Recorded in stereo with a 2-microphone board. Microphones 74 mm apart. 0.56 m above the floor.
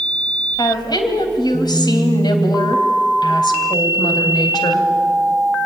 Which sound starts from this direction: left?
A woman speaking, at 0.6 s.